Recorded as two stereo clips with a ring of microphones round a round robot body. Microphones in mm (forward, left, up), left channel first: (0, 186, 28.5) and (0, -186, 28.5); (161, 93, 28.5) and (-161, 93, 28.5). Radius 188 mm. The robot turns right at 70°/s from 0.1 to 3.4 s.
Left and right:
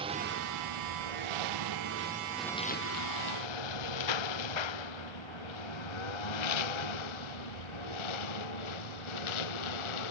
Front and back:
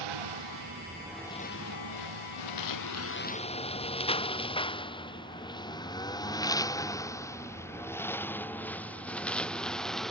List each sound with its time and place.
0.0 s a lawn mower: 165° right; by 10.1 s 90° left